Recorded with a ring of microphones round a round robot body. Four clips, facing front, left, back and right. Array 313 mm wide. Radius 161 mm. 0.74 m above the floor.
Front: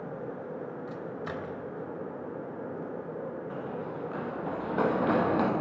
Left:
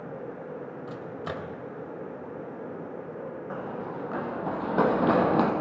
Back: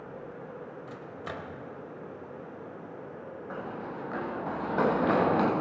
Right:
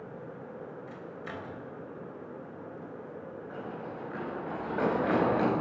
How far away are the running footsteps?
About 7.5 m.